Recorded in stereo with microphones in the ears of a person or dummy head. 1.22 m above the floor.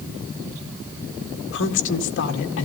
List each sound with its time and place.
1.5 s a woman speaking: 60° left (ahead or behind), 2.0 m